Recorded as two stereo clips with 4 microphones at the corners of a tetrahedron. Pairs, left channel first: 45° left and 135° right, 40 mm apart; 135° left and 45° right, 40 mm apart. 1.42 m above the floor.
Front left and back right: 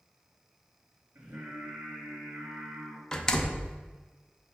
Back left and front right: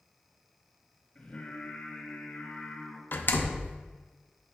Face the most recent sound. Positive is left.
turn(degrees=115)